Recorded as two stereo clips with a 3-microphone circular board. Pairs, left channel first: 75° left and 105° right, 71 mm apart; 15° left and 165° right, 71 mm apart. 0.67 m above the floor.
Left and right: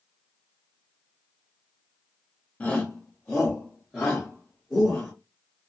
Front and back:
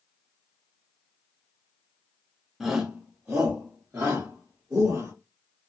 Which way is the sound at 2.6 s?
110° left.